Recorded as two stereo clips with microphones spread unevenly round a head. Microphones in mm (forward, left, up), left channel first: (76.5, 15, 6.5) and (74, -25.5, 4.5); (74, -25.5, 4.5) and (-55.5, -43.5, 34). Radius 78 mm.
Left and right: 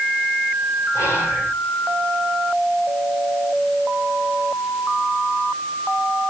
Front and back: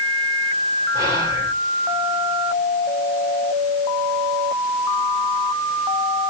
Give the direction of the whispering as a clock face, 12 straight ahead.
8 o'clock.